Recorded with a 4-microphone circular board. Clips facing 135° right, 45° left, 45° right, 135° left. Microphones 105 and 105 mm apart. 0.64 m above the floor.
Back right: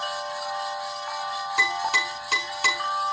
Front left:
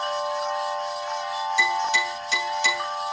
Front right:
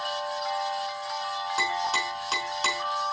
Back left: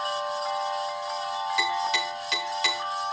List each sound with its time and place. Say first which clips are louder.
1.6 s tapping: front left 1 dB, front right 1 dB; 100° right, 6 m